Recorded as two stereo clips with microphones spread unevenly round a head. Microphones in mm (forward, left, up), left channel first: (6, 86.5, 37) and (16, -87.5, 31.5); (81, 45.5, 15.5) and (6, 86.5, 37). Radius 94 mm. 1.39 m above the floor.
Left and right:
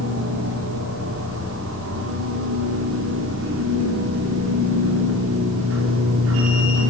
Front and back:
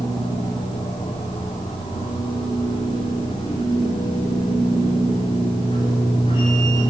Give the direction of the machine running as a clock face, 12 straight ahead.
3 o'clock.